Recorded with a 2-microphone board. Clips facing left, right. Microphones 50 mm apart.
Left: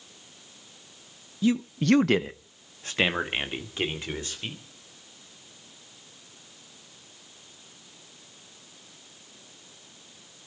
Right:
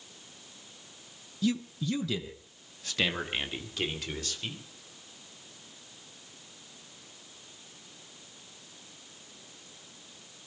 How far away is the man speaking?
About 0.6 m.